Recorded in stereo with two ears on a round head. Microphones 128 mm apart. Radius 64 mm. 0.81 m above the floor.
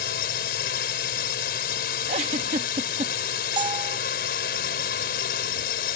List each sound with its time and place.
0.0 s a drone: 75° left (ahead or behind)
2.1 s a giggle: 50° right (ahead or behind)
3.6 s a bell: 30° right (ahead or behind)